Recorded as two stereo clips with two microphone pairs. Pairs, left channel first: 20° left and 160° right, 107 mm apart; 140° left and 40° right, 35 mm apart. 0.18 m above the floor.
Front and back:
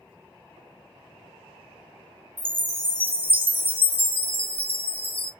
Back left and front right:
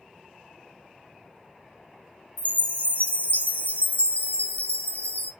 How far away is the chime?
About 1.0 m.